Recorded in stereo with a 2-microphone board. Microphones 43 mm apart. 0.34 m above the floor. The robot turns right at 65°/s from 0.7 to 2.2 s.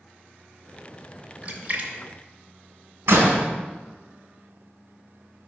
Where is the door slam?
65° right (ahead or behind), 1.6 m.